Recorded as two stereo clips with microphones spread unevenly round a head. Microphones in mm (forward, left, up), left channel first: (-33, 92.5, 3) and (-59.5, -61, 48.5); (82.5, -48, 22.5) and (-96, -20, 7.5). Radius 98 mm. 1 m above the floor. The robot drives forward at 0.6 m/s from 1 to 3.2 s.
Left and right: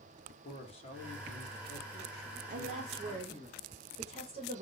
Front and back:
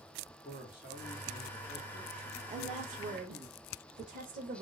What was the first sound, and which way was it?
A man speaking, 55° left.